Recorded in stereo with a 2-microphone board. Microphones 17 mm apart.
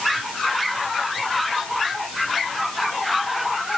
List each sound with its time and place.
Only background noise.